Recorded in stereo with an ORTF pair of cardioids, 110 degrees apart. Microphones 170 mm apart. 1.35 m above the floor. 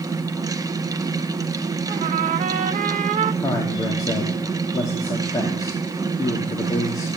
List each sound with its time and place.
0.0 s a fan: 20° right, 1.0 m
1.9 s a trumpet: 50° right, 1.1 m
3.4 s a man speaking: 20° left, 2.5 m